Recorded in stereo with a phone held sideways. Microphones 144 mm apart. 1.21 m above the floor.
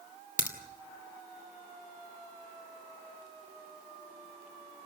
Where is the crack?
60° left (ahead or behind), 2.5 m.